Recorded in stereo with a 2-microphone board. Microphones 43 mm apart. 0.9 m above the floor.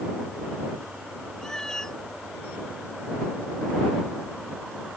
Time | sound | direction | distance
1.4 | a cat meowing | 15° left (ahead or behind) | ?